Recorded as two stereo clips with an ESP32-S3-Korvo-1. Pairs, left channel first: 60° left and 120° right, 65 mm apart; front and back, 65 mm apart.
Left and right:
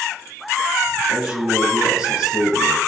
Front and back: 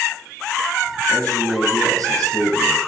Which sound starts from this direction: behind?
A man speaking, at 1.1 s.